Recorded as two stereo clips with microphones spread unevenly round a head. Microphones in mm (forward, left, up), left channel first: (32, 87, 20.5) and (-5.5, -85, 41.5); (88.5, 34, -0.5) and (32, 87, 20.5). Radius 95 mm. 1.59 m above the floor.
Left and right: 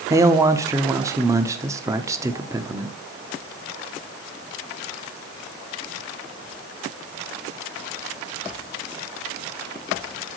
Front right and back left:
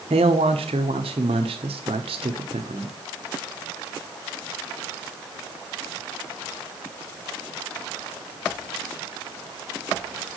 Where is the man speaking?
Straight behind, 0.9 m.